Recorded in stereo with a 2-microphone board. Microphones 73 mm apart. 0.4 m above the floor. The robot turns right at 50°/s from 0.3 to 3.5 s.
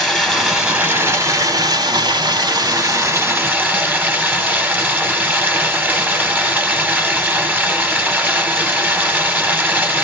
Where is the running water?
Straight behind, 0.8 m; by 10.0 s 20° right, 0.8 m.